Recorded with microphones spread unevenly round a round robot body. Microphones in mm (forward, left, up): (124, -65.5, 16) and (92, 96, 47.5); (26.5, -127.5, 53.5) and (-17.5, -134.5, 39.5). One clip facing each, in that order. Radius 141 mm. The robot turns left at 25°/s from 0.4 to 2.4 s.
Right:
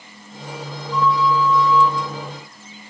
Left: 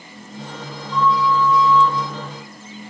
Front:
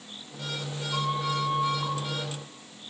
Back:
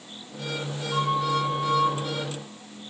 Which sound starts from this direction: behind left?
A flute, at 0.9 s.